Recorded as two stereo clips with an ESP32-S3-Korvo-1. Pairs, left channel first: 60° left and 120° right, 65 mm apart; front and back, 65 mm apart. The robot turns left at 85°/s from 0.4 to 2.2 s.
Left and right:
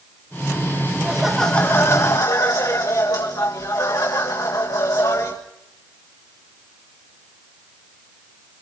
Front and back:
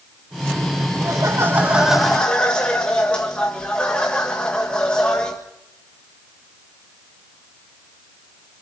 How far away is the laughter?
About 1.8 m.